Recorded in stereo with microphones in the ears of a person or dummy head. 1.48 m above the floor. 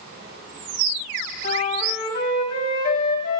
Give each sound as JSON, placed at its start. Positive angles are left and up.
{"t": 1.4, "sound": "a flute", "side_deg": 40, "distance_m": 1.7}